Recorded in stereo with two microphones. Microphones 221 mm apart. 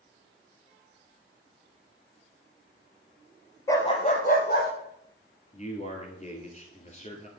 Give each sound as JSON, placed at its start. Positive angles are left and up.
{"t": 3.7, "sound": "a dog barking", "side_deg": 15, "distance_m": 0.9}
{"t": 5.5, "sound": "a man speaking", "side_deg": 30, "distance_m": 1.7}